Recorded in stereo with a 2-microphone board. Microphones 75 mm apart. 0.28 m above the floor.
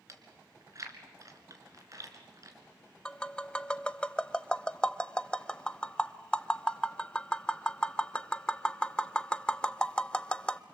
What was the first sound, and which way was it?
Chewing, 45° right (ahead or behind).